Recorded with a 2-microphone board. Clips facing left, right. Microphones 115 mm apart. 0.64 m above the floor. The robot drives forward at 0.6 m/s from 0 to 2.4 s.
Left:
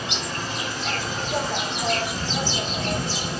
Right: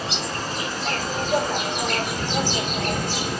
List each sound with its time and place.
0.0 s an insect: 35° right (ahead or behind), 2.5 m; by 3.4 s 60° right (ahead or behind), 1.9 m